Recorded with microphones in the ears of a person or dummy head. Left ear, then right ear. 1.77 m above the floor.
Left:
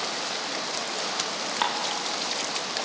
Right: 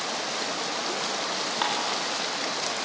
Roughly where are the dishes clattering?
Centre.